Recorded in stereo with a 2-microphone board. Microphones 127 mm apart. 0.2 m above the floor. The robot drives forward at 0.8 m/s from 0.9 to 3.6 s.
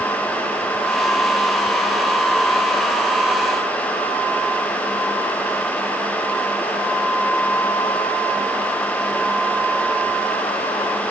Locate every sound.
Only background noise.